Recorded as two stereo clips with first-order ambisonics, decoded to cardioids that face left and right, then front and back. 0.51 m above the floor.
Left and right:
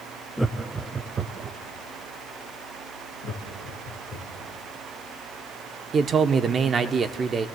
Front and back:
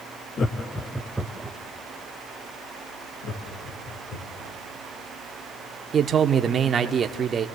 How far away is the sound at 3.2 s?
About 5 m.